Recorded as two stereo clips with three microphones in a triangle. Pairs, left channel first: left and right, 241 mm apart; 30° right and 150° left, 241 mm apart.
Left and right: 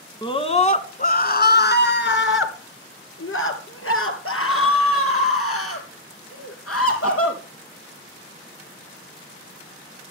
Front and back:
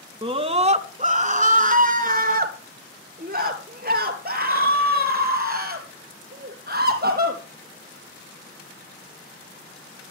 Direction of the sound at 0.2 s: 125° left.